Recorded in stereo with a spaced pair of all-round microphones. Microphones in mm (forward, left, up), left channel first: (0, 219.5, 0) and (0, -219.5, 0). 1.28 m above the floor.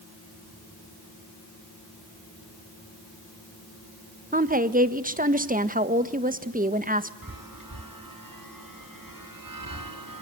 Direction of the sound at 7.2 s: 50° right (ahead or behind).